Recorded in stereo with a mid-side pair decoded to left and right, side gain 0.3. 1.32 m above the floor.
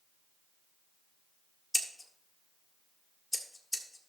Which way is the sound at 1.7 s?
20° left.